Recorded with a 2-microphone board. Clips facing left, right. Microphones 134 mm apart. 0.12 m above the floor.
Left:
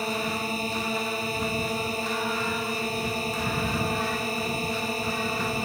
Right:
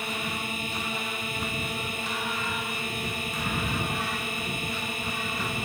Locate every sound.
0.0 s a drone: 35° left (ahead or behind)